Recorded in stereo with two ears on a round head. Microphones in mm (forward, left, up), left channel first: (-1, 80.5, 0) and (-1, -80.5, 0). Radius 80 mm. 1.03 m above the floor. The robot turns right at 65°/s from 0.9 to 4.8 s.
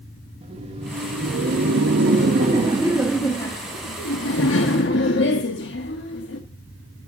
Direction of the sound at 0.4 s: 145° right.